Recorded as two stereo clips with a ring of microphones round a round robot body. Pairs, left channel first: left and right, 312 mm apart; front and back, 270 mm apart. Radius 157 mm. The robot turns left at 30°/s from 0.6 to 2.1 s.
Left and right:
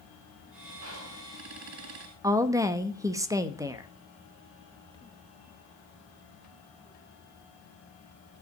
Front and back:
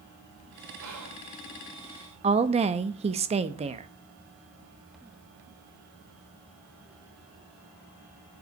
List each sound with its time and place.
0.8 s whispering: 135° right, 4 m; by 1.3 s 150° right, 4 m
2.2 s a woman speaking: 155° right, 0.7 m